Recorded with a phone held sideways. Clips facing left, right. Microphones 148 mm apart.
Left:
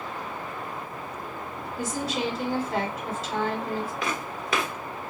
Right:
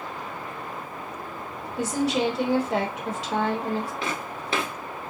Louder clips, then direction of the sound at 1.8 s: Right 6 dB; 80° right.